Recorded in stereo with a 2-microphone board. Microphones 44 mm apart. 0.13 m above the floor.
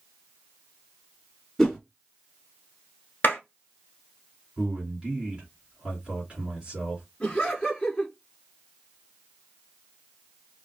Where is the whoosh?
5° left (ahead or behind), 1.7 m.